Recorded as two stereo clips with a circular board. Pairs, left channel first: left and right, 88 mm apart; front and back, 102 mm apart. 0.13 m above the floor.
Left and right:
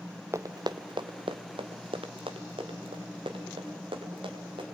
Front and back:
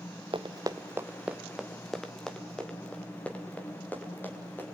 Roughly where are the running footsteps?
Behind right.